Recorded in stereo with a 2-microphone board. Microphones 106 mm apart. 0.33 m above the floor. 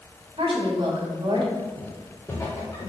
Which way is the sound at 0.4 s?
60° right (ahead or behind).